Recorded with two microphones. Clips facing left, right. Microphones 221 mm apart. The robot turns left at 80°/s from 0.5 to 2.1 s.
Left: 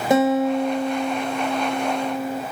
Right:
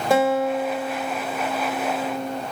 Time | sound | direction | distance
0.1 | a guitar | 160° left | 1.2 m